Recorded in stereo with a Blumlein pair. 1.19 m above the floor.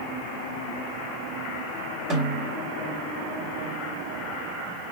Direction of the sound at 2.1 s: 35° right.